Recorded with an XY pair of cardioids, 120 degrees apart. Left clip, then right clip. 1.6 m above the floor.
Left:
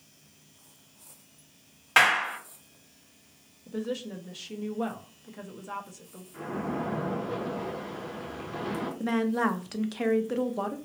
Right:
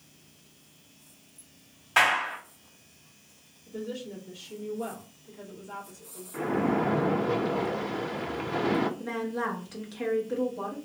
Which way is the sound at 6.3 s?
55° right.